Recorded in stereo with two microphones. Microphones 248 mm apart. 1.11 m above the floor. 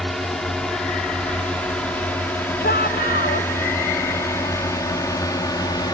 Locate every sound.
0.0 s a drone: centre (ahead or behind); by 6.0 s 15° left (ahead or behind)
2.6 s a shout: 40° left (ahead or behind)